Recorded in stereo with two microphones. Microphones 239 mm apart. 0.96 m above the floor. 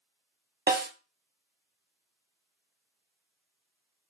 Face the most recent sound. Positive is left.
turn(degrees=-40)  # may be behind; listen again after turning